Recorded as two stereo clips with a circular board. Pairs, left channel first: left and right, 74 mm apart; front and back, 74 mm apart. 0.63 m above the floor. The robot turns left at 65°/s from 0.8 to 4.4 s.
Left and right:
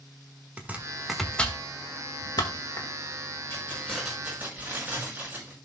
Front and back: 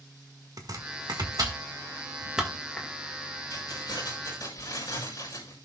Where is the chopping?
160° right, 1.6 m; by 2.9 s 65° left, 1.6 m.